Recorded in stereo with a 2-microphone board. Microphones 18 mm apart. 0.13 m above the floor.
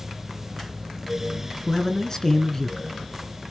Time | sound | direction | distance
1.7 | a man speaking | 25° left (ahead or behind) | 1.9 m